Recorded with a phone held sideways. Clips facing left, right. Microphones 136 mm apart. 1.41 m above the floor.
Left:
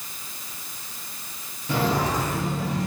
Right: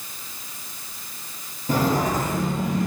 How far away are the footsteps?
About 1.8 m.